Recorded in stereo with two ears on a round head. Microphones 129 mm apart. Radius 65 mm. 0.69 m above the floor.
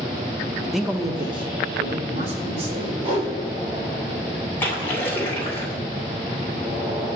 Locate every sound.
0.7 s a man speaking: centre (ahead or behind), 0.5 m; by 2.9 s 45° right (ahead or behind), 2.5 m
3.0 s a whoosh: 35° right (ahead or behind), 3.5 m
4.6 s a splash: 15° left (ahead or behind), 2.5 m